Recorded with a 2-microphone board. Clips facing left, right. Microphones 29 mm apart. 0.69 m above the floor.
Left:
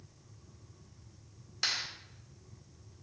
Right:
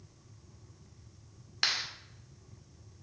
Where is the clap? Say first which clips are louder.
Right 3 dB; 35° right (ahead or behind), 2 m.